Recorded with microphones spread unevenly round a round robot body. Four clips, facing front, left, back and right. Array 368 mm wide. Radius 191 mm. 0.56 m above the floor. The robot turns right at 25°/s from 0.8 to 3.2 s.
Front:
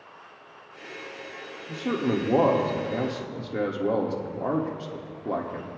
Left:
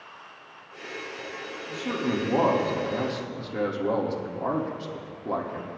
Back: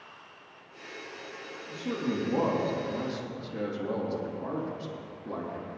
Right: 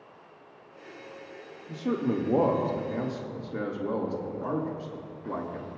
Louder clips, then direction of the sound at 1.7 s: Even, front 6 dB; 20° right.